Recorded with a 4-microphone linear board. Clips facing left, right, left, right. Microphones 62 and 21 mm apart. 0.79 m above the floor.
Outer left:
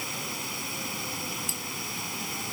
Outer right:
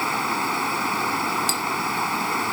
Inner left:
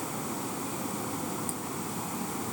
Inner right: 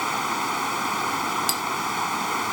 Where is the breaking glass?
75° right (ahead or behind).